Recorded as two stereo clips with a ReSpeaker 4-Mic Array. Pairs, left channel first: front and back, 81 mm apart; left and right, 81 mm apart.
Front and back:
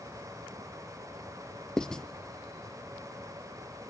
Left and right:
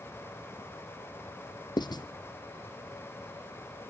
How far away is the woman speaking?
No woman speaking in this recording.